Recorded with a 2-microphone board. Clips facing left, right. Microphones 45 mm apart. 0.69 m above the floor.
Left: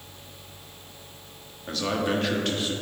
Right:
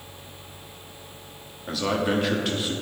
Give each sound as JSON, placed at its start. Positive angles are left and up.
{"t": 1.7, "sound": "a man speaking", "side_deg": -5, "distance_m": 1.1}